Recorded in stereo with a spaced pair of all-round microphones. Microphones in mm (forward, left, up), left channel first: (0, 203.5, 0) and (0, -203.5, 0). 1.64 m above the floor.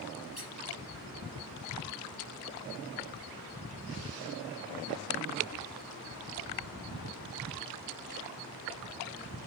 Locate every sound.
0.4 s a squeak: 65° right (ahead or behind), 4.5 m